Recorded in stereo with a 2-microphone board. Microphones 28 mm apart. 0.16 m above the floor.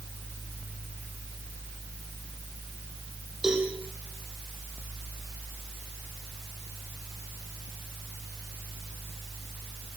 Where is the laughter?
No laughter in this recording.